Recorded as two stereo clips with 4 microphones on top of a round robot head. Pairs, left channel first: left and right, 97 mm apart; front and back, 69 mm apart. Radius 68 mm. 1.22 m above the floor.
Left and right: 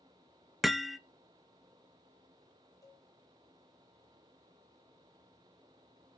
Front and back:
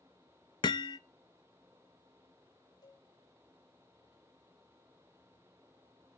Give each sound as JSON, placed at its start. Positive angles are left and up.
{"t": 0.6, "sound": "hammering", "azimuth_deg": -5, "distance_m": 0.6}
{"t": 2.8, "sound": "a cowbell", "azimuth_deg": 30, "distance_m": 6.0}